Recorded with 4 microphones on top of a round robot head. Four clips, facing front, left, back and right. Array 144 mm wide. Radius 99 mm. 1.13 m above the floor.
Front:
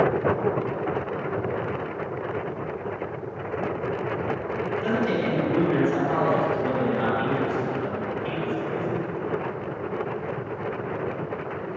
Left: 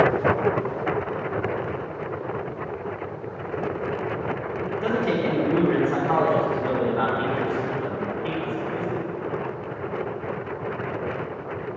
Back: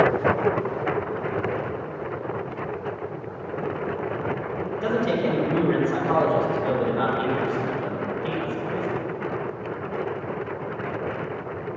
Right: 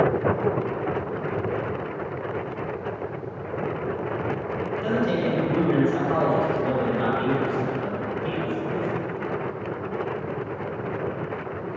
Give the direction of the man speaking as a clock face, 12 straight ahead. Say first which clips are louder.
Even, back 3 dB; 8 o'clock.